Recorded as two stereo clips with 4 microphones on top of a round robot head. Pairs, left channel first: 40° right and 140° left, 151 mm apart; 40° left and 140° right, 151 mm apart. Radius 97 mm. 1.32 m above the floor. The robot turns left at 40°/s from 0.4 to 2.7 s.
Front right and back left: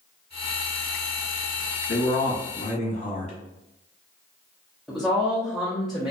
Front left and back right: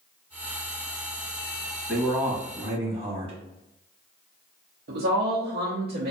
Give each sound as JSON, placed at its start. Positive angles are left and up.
{"t": 1.9, "sound": "a man speaking", "azimuth_deg": -55, "distance_m": 0.9}
{"t": 4.9, "sound": "a woman speaking", "azimuth_deg": -135, "distance_m": 0.7}